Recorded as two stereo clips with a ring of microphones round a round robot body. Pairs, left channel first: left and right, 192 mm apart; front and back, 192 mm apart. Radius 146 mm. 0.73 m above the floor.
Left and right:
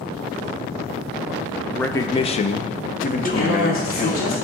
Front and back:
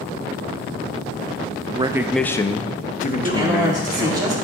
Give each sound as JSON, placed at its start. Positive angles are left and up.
{"t": 1.8, "sound": "a man speaking", "azimuth_deg": 165, "distance_m": 0.6}
{"t": 3.2, "sound": "a man speaking", "azimuth_deg": 110, "distance_m": 3.0}